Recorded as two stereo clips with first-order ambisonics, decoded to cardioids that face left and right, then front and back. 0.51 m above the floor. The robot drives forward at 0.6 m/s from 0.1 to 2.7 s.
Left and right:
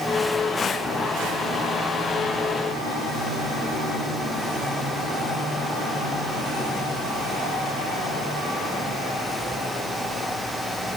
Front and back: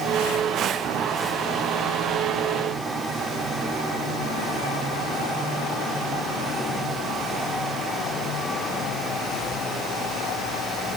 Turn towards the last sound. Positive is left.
No sound to turn to.